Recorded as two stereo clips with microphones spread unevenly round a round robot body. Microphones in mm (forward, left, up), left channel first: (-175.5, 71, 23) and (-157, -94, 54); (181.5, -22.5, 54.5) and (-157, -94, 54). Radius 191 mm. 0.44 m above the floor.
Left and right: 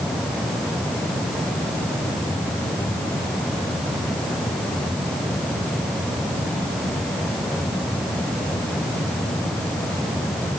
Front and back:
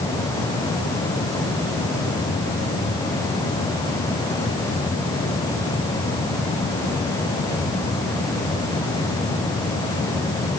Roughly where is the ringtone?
I don't hear a ringtone.